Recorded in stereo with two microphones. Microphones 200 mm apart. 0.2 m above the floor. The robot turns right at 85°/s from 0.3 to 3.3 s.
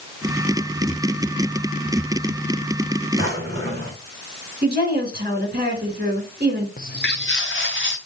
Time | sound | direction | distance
3.2 | a drawer | 40° right (ahead or behind) | 3.5 m
4.6 | a woman speaking | 50° right (ahead or behind) | 2.5 m
6.8 | footsteps | 45° left (ahead or behind) | 1.5 m